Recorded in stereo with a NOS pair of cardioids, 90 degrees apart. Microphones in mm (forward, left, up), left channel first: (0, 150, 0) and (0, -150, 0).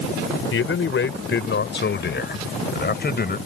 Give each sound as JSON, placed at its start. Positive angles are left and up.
{"t": 0.5, "sound": "a man speaking", "azimuth_deg": 45}